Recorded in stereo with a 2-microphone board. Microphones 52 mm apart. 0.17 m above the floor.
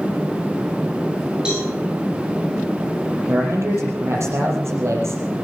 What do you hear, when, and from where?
1.4 s a cowbell: 20° right (ahead or behind), 9 m
3.3 s a man speaking: 65° right (ahead or behind), 5.5 m